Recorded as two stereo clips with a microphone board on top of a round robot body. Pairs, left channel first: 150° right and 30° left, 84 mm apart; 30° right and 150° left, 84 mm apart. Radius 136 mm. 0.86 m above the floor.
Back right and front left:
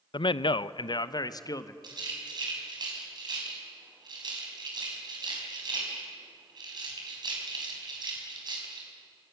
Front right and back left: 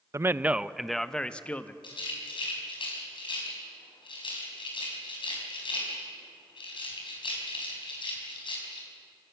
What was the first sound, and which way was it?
A man speaking, 160° right.